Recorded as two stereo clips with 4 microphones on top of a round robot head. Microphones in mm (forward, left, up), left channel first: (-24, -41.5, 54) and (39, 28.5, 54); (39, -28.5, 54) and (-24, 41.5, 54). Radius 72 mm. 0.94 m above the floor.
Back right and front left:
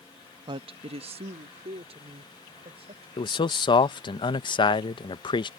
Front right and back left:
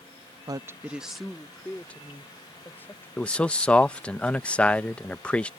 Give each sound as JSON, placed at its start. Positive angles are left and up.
{"t": 0.5, "sound": "a woman speaking", "azimuth_deg": 85}
{"t": 3.2, "sound": "a man speaking", "azimuth_deg": -125}